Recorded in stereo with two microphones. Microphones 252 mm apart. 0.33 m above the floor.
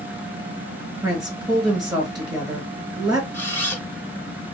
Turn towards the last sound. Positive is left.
turn(degrees=10)  # may be behind; listen again after turning